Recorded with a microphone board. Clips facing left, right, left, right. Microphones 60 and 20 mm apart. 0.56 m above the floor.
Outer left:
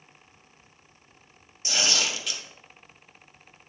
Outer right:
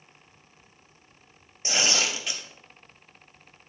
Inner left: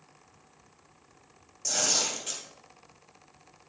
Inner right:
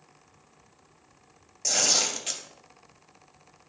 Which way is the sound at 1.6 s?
35° right (ahead or behind).